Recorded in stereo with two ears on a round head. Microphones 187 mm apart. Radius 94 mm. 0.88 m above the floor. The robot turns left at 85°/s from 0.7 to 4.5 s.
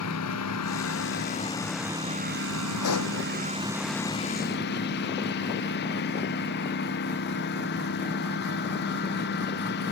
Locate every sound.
0.0 s a lawn mower: 90° left; by 9.9 s 130° left
2.8 s a pop: 75° left (ahead or behind)